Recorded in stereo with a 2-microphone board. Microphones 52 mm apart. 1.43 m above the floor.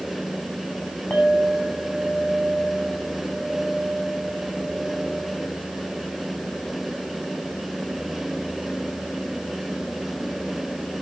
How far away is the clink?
About 6 m.